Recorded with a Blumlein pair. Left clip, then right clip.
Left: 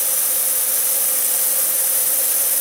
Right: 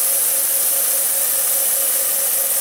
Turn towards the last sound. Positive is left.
No sound to turn to.